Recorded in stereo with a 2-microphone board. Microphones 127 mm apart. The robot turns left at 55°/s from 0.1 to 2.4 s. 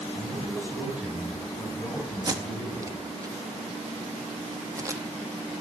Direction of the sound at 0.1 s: 125° right.